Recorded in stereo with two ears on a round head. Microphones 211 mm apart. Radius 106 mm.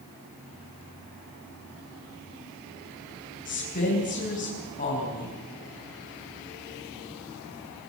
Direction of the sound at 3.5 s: 40° left (ahead or behind).